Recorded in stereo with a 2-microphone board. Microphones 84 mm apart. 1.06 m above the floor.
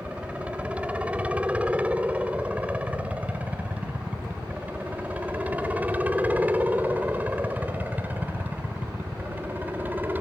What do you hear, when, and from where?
0.0 s a helicopter: 15° right (ahead or behind); by 10.2 s 20° right (ahead or behind)